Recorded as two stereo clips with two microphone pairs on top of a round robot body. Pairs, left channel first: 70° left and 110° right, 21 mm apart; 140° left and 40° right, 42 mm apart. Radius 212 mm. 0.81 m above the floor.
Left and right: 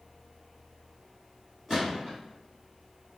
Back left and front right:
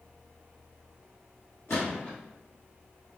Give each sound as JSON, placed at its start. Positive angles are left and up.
{"t": 1.7, "sound": "a gunshot", "azimuth_deg": 175, "distance_m": 0.8}